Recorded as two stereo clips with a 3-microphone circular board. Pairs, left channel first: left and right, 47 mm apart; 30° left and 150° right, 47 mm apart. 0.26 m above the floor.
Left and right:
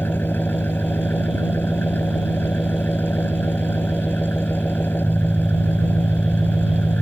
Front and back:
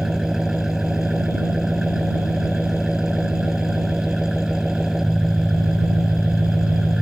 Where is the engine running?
130° left.